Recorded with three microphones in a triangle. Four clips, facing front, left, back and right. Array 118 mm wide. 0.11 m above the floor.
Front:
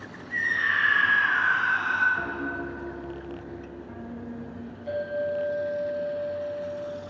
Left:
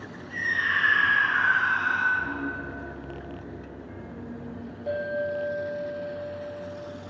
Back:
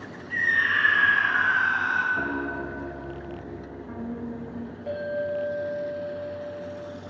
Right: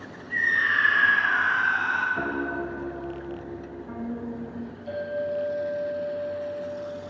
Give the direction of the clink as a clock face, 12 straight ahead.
8 o'clock.